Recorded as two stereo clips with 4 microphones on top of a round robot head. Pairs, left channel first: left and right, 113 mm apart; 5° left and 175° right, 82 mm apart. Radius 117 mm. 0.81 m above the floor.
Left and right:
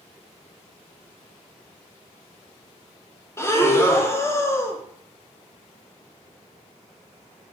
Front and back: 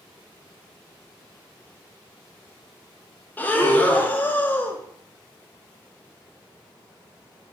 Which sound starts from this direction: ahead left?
Breathing, at 3.4 s.